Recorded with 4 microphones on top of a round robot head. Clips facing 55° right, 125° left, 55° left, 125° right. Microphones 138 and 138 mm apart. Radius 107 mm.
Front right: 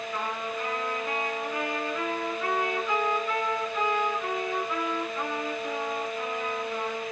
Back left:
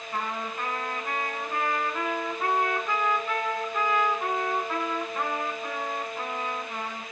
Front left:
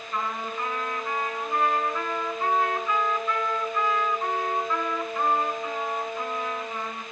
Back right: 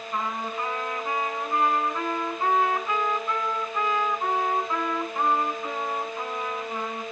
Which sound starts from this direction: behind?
A trumpet, at 0.1 s.